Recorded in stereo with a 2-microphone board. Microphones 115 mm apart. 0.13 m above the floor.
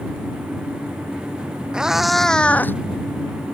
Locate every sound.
1.7 s a cat meowing: 5° right (ahead or behind); by 2.8 s 20° left (ahead or behind)